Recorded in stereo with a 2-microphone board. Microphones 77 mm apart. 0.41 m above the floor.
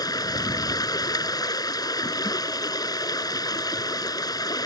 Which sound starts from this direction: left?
Running water, at 0.0 s.